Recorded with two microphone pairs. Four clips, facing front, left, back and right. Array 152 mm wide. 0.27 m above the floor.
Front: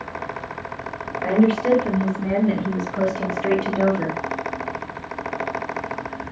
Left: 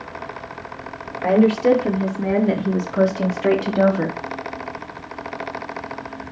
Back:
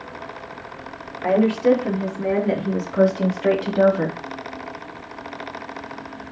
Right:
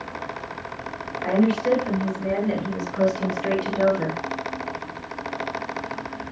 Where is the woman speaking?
95° left, 6 m; by 4.2 s 115° left, 3 m.